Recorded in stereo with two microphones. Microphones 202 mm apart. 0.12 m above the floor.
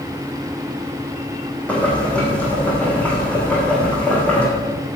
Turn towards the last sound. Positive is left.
turn(degrees=5)  # may be behind; listen again after turning